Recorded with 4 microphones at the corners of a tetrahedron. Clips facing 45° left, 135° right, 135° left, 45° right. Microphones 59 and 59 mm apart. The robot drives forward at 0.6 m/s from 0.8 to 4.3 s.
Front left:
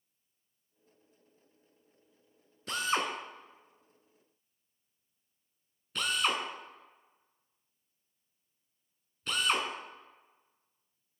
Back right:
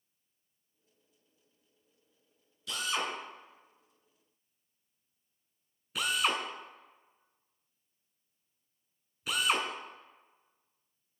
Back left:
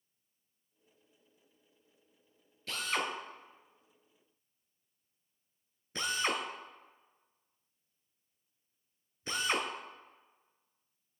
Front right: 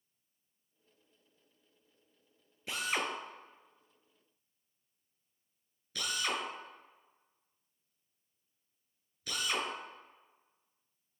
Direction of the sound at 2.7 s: 20° left.